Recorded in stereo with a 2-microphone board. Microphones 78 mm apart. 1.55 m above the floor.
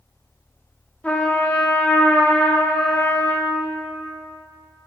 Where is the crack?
No crack in this recording.